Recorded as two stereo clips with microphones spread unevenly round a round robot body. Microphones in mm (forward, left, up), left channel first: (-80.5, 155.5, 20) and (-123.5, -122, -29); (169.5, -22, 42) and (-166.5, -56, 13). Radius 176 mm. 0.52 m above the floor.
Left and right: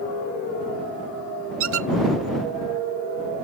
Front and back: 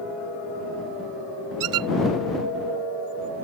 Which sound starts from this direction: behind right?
A squeak, at 1.6 s.